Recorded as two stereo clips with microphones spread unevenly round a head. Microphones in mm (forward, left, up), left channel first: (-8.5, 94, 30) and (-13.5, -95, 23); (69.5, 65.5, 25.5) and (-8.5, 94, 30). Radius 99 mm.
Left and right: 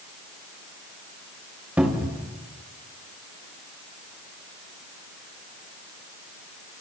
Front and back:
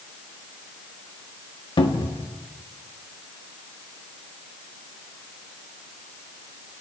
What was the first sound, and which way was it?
A cupboard door, 10° right.